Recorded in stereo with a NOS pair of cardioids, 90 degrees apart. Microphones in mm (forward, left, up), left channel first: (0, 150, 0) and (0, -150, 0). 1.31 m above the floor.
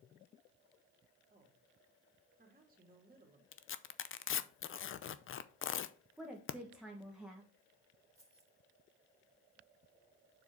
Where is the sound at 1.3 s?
25° right, 3 m.